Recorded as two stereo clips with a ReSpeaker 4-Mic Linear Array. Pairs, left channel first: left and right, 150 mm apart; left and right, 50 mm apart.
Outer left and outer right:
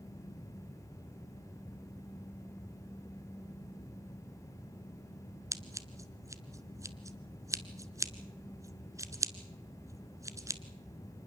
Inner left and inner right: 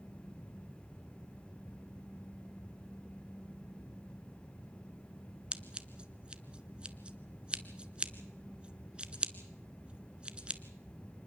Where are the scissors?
20° right (ahead or behind), 1.0 m.